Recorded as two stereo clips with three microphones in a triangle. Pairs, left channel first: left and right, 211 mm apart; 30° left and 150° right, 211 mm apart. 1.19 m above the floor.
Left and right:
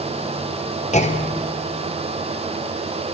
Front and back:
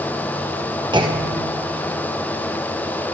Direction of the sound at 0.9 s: 145° left.